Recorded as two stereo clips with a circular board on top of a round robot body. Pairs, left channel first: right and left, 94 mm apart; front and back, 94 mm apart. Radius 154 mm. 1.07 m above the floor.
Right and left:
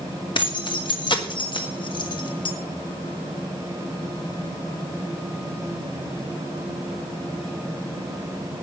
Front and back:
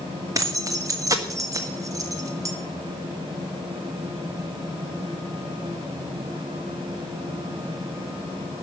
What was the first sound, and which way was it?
Keys jangling, 125° right.